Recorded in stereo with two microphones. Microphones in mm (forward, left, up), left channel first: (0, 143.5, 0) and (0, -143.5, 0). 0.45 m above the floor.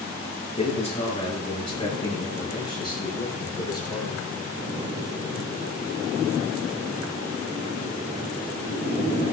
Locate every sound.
0.6 s a man speaking: 20° left (ahead or behind), 7.5 m; by 4.2 s 15° left (ahead or behind), 9 m